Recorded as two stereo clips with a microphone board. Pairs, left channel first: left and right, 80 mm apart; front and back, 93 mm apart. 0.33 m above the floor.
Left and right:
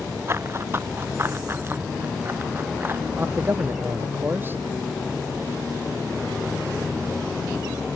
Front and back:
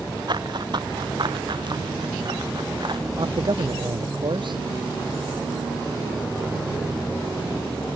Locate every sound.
0.3 s running footsteps: 145° right; by 3.0 s 150° right
3.2 s a man speaking: 150° right